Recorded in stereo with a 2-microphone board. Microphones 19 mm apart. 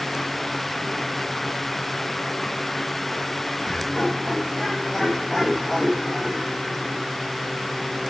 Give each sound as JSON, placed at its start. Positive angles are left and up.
{"t": 3.6, "sound": "laughter", "side_deg": 30, "distance_m": 8.0}